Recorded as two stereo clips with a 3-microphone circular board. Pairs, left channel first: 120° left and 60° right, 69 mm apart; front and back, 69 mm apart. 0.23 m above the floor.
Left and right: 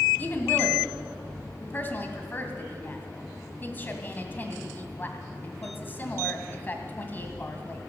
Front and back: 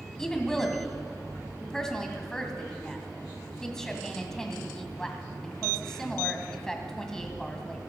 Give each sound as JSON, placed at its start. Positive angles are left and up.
{"t": 0.2, "sound": "a woman speaking", "azimuth_deg": 80, "distance_m": 1.6}